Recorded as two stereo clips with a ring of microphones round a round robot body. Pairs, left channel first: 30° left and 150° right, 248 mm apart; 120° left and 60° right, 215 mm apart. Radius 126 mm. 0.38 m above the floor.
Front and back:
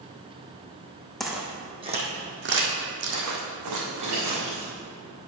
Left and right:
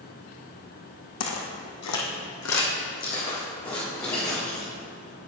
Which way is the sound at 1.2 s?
120° left.